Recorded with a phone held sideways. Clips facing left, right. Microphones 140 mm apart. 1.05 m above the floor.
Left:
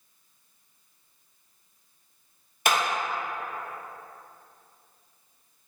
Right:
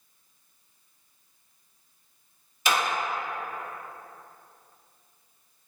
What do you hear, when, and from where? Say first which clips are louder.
2.6 s a clap: left 1 dB; 50° left (ahead or behind), 1.2 m